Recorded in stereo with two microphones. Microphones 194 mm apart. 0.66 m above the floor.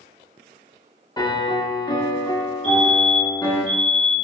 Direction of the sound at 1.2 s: 20° left (ahead or behind).